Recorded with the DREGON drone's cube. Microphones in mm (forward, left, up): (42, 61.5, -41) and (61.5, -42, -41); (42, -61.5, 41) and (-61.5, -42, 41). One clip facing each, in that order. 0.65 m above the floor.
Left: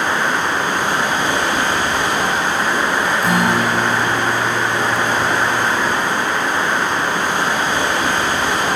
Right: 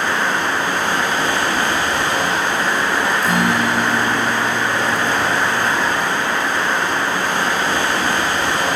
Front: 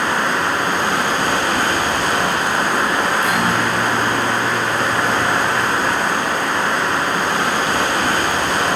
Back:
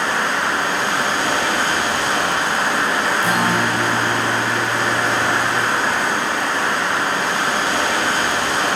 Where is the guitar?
120° left, 4.5 m.